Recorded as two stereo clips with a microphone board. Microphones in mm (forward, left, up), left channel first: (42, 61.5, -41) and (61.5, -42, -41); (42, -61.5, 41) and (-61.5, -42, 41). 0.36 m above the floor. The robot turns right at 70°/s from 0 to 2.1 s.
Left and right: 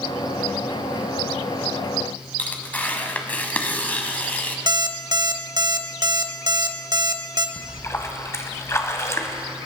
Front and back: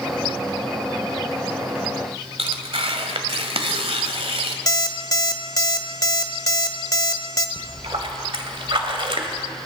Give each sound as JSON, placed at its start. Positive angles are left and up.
{"t": 2.4, "sound": "tearing paper", "azimuth_deg": 175, "distance_m": 1.3}
{"t": 4.7, "sound": "an alarm clock", "azimuth_deg": -50, "distance_m": 0.9}
{"t": 7.6, "sound": "a splash", "azimuth_deg": 160, "distance_m": 1.4}